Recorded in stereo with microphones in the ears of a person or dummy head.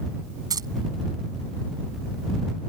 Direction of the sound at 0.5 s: 20° right (ahead or behind).